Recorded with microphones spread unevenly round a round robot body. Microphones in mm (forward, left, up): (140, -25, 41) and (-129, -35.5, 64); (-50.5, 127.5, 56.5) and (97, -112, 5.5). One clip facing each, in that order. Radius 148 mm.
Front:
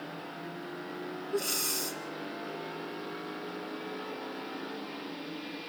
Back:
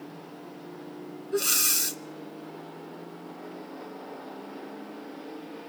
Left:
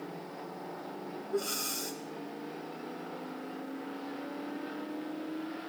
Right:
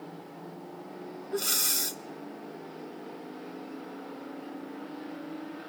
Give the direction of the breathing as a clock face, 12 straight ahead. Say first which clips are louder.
Back 4 dB, left 1 dB; 4 o'clock.